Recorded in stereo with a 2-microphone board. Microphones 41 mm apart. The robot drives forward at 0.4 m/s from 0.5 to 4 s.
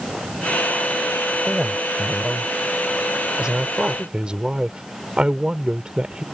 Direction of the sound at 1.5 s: 15° right (ahead or behind).